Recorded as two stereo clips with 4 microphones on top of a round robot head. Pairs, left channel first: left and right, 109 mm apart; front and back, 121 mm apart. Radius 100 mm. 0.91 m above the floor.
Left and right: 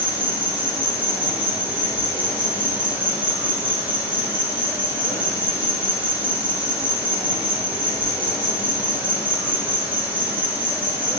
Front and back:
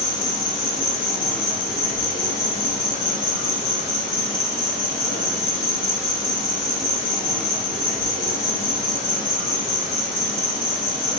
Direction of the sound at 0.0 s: 15° right.